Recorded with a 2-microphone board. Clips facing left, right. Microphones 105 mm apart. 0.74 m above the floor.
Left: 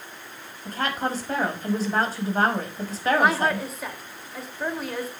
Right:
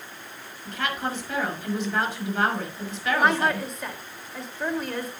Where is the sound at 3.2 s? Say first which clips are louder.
Right 2 dB; 5° left (ahead or behind), 3 m.